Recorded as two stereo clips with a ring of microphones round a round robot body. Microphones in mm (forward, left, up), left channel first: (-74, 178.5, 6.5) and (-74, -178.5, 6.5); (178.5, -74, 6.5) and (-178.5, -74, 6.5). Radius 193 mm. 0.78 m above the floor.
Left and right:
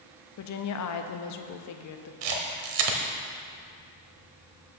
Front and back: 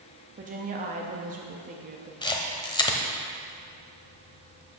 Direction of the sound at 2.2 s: 75° right.